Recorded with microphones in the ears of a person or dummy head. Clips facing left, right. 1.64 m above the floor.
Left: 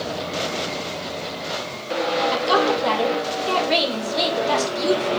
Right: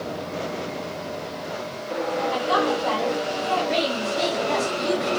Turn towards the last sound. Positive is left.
turn(degrees=75)  # may be behind; listen again after turning